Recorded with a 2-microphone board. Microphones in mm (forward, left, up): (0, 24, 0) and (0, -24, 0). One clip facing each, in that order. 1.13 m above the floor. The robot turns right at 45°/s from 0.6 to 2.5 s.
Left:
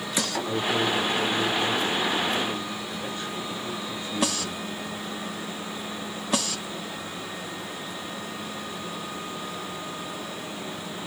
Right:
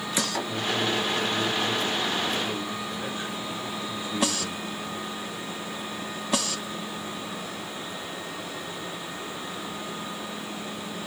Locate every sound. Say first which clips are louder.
0.5 s a man speaking: left 2 dB; 115° left, 3 m; by 4.6 s 160° right, 3 m